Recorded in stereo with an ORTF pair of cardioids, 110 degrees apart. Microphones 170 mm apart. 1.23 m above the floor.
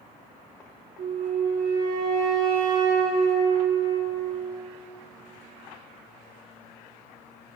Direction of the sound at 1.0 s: 60° right.